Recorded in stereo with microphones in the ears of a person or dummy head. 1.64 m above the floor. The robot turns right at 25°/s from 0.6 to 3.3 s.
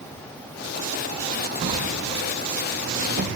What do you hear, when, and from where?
1.6 s a drawer: 25° right (ahead or behind), 1.2 m; by 3.3 s 40° right (ahead or behind), 1.2 m